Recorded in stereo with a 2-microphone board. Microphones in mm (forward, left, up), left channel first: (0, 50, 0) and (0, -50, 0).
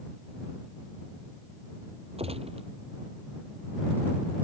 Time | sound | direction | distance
2.2 | a gunshot | 80° right | ?